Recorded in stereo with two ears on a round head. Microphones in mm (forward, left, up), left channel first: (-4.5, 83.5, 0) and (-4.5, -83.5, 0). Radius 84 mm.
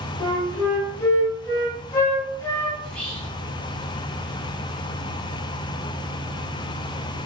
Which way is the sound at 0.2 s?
15° left (ahead or behind).